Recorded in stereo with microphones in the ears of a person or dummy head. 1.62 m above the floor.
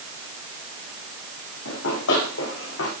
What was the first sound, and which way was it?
Running footsteps, 75° left (ahead or behind).